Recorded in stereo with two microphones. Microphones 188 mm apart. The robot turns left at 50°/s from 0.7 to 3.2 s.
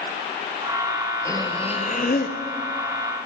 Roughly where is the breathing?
Behind.